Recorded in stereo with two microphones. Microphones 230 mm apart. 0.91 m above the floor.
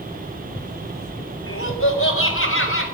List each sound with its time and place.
1.5 s laughter: 70° left (ahead or behind), 4 m; by 2.8 s 65° left (ahead or behind), 5 m